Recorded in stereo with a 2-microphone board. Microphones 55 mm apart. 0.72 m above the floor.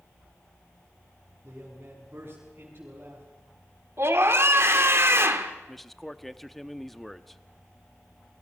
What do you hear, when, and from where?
1.4 s a man speaking: 40° right (ahead or behind), 6.5 m
4.0 s a scream: 55° right (ahead or behind), 2.5 m
5.7 s a man speaking: 5° left (ahead or behind), 0.9 m